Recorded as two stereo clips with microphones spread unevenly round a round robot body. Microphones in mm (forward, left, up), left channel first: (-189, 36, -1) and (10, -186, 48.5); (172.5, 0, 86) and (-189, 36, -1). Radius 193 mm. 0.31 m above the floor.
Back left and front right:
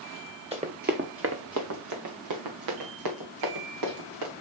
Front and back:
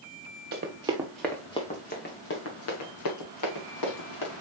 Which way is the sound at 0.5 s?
120° right.